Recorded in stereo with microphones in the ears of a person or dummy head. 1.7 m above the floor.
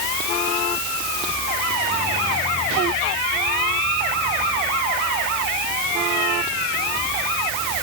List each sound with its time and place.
Only background noise.